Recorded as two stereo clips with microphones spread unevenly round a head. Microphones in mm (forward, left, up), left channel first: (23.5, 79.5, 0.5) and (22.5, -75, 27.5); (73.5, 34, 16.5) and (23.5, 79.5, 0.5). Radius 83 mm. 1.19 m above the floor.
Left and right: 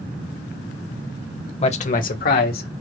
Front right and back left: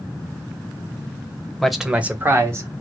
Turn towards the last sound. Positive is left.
turn(degrees=105)